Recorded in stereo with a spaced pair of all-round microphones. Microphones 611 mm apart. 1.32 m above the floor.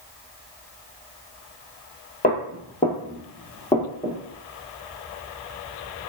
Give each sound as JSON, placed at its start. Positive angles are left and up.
{"t": 2.2, "sound": "footsteps", "side_deg": 15, "distance_m": 1.4}